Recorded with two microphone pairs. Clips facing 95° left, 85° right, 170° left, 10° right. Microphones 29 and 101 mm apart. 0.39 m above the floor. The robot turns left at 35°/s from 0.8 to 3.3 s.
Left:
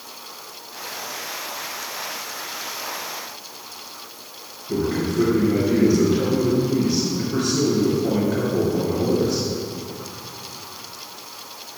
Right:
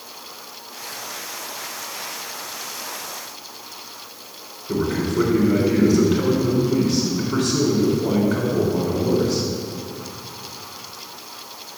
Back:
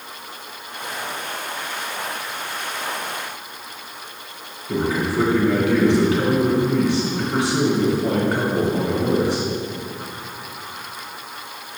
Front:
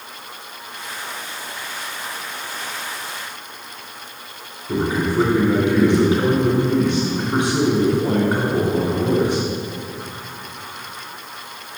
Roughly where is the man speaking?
Right.